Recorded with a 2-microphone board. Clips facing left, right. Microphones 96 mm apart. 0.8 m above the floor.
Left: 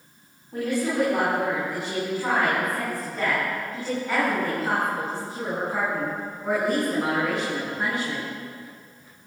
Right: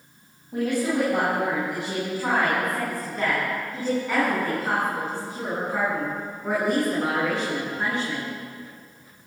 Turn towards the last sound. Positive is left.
turn(degrees=5)  # may be behind; listen again after turning